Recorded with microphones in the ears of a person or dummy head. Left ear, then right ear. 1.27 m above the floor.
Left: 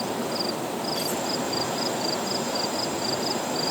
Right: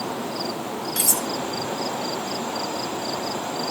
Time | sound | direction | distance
1.0 | cutlery clinking | 45° right (ahead or behind) | ?